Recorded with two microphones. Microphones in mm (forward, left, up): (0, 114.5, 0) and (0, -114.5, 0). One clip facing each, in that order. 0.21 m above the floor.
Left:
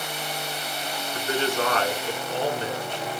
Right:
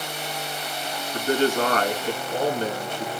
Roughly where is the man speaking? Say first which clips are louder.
Right 5 dB; right.